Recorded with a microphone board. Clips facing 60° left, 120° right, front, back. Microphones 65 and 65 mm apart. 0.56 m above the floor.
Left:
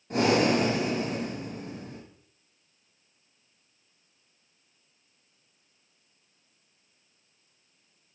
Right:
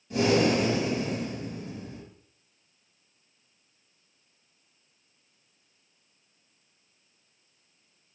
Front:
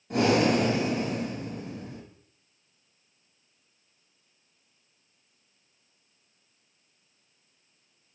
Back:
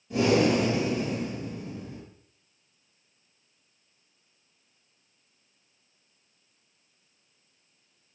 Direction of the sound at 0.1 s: 25° left.